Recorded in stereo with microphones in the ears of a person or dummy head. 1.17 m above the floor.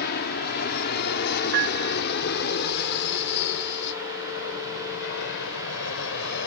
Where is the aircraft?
50° left (ahead or behind); by 6.5 s 60° left (ahead or behind).